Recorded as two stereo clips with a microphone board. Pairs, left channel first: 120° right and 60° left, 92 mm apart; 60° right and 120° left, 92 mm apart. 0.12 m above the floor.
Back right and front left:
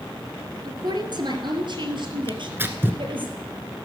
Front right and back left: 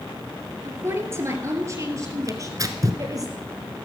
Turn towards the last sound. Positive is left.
turn(degrees=110)